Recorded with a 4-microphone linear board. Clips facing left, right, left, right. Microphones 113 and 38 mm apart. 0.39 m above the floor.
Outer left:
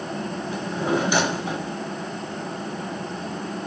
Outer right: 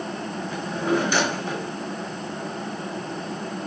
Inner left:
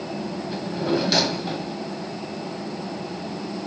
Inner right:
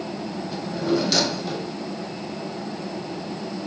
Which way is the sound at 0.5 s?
15° left (ahead or behind).